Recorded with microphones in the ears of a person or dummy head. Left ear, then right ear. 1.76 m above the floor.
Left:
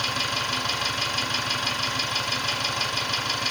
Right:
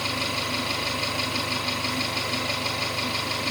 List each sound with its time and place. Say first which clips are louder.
0.0 s an engine running: left 1 dB; 60° left (ahead or behind), 9 m